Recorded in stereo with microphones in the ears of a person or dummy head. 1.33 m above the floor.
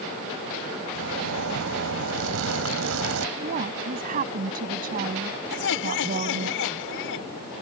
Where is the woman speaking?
50° right (ahead or behind).